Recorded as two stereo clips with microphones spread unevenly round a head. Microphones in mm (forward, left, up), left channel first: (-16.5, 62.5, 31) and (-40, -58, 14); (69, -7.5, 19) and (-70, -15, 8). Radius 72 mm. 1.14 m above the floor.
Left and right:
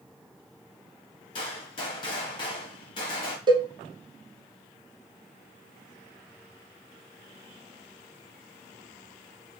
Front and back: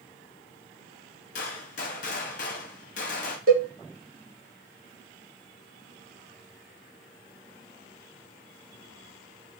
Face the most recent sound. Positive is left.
turn(degrees=-155)